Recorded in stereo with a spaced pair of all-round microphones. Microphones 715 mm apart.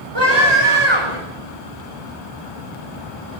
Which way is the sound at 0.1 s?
35° right (ahead or behind).